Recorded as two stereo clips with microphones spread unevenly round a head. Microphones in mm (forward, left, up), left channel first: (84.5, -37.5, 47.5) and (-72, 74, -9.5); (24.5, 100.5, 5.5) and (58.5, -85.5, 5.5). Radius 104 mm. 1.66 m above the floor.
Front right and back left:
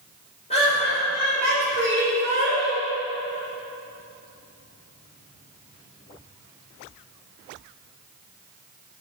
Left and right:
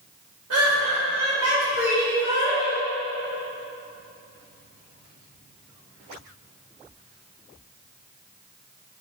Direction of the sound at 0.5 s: 95° right.